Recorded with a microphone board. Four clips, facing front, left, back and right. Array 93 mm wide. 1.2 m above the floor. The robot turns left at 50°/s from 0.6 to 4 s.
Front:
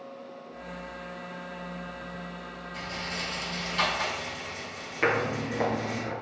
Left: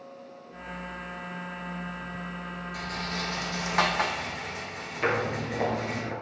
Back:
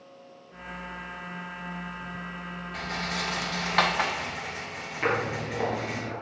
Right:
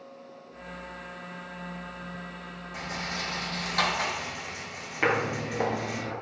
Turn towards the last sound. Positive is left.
turn(degrees=85)